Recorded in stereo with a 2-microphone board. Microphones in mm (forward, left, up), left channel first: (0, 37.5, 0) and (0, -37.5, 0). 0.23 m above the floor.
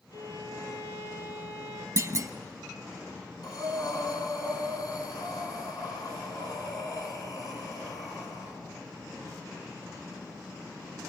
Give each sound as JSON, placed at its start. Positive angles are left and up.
{"t": 0.1, "sound": "a violin", "side_deg": 50, "distance_m": 4.5}
{"t": 2.0, "sound": "a clunk", "side_deg": -40, "distance_m": 0.8}
{"t": 3.4, "sound": "breathing", "side_deg": 55, "distance_m": 2.5}